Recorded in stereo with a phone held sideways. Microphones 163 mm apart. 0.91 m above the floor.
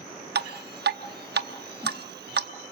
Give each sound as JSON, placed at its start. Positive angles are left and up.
{"t": 0.3, "sound": "dripping", "side_deg": -75, "distance_m": 0.9}